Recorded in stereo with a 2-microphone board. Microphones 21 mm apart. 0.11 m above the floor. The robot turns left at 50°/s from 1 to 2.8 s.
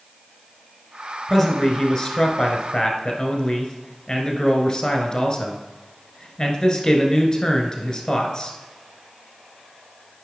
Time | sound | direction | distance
1.3 | a man speaking | 170° left | 1.3 m